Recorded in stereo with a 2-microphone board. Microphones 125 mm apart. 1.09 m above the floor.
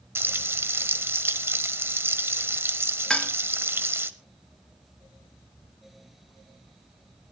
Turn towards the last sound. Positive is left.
turn(degrees=5)  # may be behind; listen again after turning